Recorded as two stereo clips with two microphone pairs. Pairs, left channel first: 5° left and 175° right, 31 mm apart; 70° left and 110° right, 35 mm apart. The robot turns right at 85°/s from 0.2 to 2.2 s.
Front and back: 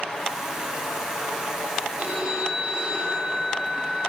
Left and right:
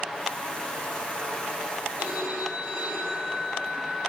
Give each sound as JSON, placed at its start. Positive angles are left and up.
{"t": 2.0, "sound": "a phone ringing", "azimuth_deg": -155, "distance_m": 6.5}